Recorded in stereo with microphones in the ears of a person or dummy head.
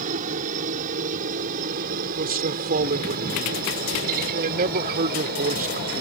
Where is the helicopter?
45° right (ahead or behind); by 6.0 s 50° right (ahead or behind).